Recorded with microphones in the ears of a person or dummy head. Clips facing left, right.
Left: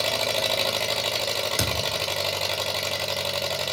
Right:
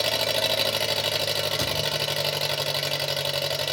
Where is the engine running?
15° right (ahead or behind), 0.9 m.